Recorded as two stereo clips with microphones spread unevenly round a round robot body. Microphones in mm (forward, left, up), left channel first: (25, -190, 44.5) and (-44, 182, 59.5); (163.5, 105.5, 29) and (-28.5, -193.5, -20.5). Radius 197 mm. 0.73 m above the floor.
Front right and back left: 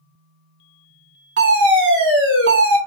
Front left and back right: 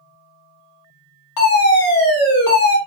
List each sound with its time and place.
1.4 s a fire alarm: 45° left, 2.5 m